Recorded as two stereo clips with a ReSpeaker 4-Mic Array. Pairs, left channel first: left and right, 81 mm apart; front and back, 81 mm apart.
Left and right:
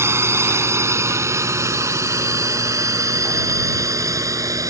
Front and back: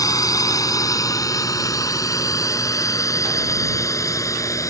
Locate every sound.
0.0 s a drone: 35° right; by 4.7 s 45° right